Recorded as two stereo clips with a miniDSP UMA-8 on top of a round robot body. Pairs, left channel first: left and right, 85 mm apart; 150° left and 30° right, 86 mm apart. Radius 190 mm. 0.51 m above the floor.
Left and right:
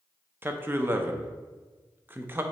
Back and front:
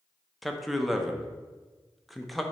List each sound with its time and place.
0.4 s a man speaking: 120° right, 0.7 m